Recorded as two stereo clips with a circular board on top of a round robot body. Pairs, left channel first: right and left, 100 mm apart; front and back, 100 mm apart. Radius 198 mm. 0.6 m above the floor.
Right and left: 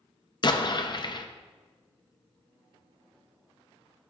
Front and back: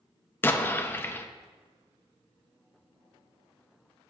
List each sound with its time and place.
0.4 s an explosion: 65° right, 0.9 m